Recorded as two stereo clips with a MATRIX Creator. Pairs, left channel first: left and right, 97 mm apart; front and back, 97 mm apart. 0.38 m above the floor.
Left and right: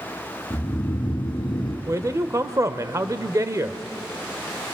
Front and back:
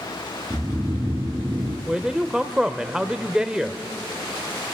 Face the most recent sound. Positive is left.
turn(degrees=-105)